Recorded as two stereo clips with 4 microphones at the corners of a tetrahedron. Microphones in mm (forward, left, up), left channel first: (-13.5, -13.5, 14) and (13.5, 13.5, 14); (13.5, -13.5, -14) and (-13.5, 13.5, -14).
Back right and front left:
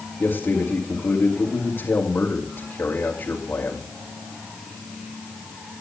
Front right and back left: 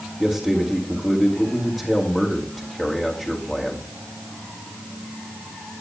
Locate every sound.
0.2 s a man speaking: 115° right, 2 m